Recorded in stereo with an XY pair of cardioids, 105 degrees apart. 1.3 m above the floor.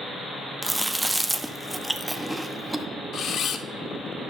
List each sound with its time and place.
0.6 s chewing: 5° right, 0.7 m
3.1 s a camera shutter: 65° left, 0.8 m